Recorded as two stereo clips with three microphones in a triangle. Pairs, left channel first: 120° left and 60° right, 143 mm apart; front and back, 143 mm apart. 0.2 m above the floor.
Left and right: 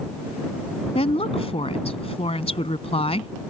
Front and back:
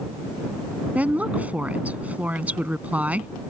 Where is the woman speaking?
105° left.